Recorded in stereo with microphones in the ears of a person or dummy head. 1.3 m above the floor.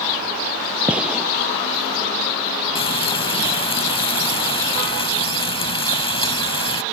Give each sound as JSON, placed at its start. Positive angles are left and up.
{"t": 0.9, "sound": "a gunshot", "side_deg": -10}
{"t": 2.8, "sound": "frying", "side_deg": 30}